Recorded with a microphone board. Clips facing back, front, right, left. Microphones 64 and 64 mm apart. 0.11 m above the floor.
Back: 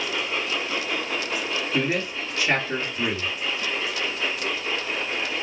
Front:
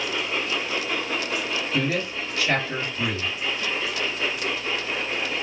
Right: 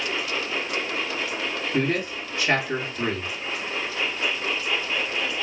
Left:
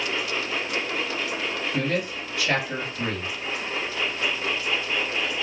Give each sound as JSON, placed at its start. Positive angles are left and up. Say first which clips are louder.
{"t": 1.7, "sound": "a man speaking", "louder": "back 1 dB, right 3 dB", "azimuth_deg": -125, "distance_m": 2.0}